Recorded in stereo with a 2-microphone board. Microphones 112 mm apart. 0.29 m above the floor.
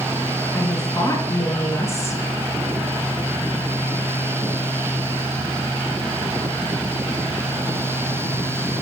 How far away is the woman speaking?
About 3 m.